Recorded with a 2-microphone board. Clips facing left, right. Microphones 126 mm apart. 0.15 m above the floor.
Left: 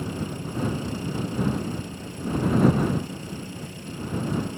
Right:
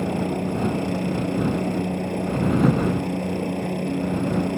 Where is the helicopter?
60° right (ahead or behind).